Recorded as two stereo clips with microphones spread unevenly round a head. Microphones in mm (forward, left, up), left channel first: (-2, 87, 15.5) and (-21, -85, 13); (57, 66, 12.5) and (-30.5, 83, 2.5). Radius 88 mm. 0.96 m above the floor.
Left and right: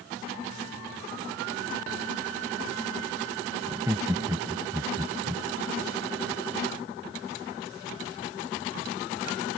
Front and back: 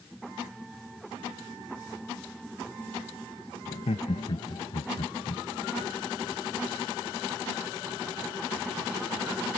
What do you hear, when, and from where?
3.7 s laughter: 25° right